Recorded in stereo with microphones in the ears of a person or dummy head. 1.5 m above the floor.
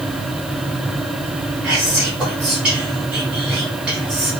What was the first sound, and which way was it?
Whispering, 5° right (ahead or behind).